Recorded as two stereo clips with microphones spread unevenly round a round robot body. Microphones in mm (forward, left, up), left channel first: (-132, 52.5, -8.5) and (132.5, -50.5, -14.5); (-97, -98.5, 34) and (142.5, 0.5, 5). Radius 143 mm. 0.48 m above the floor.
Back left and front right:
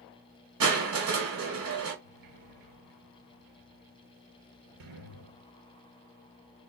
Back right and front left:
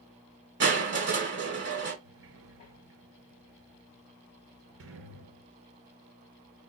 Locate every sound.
0.6 s crushing: 15° right, 2 m
2.0 s a sliding door: 10° right, 2.5 m